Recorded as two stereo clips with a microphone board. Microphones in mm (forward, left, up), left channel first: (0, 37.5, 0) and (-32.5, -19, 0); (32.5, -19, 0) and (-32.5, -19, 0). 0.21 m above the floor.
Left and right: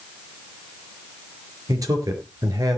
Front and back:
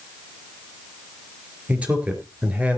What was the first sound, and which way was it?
A man speaking, 110° right.